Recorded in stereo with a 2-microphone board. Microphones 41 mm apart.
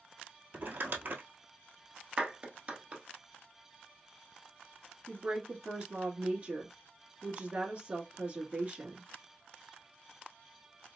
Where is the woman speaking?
30° right (ahead or behind), 1.2 m.